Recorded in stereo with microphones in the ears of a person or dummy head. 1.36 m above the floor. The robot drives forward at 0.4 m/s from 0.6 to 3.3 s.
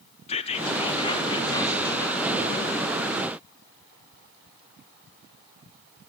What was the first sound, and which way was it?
Whispering, 30° left (ahead or behind).